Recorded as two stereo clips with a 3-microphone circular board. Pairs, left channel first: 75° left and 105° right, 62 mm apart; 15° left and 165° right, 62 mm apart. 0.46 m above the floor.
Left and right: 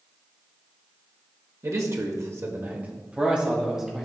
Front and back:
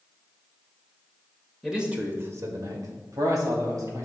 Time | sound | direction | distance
1.6 | a man speaking | 80° right | 1.4 m